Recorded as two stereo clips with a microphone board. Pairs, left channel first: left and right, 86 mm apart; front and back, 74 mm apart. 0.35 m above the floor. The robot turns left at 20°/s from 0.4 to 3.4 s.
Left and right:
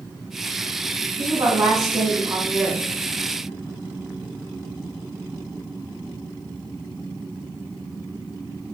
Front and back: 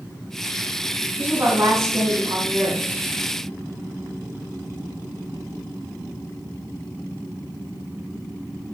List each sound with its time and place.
1.2 s a woman speaking: 125° right, 2.5 m; by 2.8 s 155° right, 2.5 m